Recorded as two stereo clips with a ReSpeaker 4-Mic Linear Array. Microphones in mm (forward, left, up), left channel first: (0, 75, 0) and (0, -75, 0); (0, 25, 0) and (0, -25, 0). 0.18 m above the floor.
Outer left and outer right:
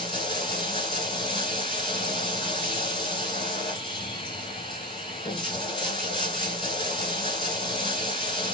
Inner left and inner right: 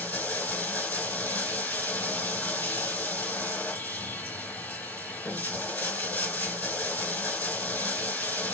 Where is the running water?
35° left (ahead or behind), 0.8 m.